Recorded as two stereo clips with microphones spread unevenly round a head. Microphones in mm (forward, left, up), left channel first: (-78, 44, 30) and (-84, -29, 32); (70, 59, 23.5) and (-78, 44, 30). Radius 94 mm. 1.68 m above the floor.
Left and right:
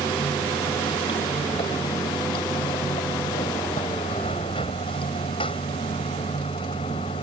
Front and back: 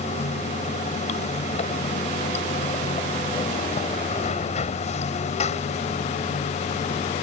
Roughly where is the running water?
Ahead left.